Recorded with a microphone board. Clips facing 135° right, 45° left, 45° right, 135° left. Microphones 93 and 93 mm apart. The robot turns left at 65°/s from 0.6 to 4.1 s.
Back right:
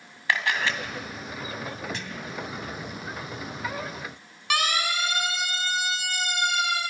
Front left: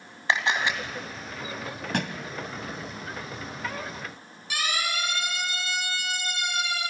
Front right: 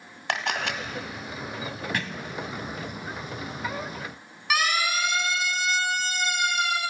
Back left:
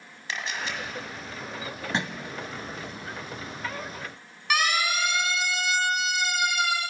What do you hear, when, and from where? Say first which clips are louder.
0.3 s a camera shutter: front left 1 dB, front right 5 dB; 20° right, 2 m; by 0.8 s 35° right, 2 m
1.9 s a thud: front left 6 dB, back left 5 dB; 70° left, 1.6 m; by 2.3 s 50° left, 1.6 m
4.5 s a siren: back right 4 dB, even; 135° right, 5.5 m; by 6.8 s 140° right, 6.5 m